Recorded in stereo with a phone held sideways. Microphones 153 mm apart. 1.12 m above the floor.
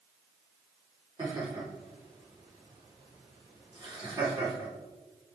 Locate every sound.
1.2 s laughter: 35° right (ahead or behind), 4 m